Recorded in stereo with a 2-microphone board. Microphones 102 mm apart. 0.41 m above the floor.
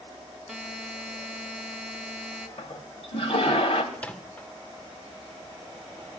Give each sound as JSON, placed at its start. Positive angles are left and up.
{"t": 0.5, "sound": "a buzzer", "side_deg": 0, "distance_m": 0.8}
{"t": 2.6, "sound": "a toilet flushing", "side_deg": 65, "distance_m": 1.1}
{"t": 3.9, "sound": "a microwave", "side_deg": 10, "distance_m": 0.7}